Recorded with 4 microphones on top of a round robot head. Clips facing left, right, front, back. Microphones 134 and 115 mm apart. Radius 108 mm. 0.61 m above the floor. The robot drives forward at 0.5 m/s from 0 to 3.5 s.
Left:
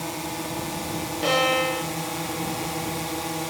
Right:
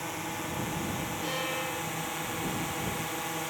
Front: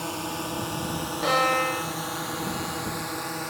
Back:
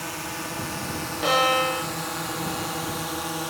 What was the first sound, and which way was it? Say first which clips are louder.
A drone: left 5 dB, front 2 dB; 50° left.